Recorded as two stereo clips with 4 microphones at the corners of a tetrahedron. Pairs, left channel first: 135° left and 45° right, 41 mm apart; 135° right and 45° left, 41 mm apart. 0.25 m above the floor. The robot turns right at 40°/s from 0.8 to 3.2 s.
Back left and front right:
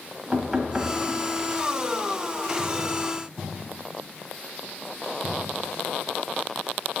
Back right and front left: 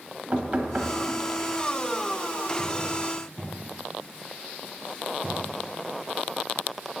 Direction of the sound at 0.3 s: 15° left.